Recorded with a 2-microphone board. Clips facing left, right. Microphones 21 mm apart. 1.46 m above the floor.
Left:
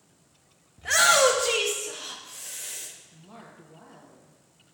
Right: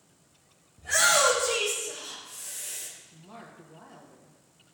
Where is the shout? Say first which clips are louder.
Left 3 dB; 80° left, 1.7 m; by 2.9 s 45° left (ahead or behind), 1.8 m.